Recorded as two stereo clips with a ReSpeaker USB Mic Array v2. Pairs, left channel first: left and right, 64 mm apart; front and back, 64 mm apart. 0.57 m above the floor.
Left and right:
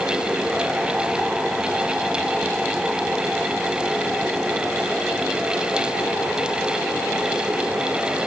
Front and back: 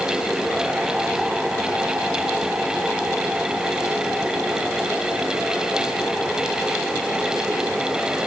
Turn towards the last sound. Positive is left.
No sound to turn to.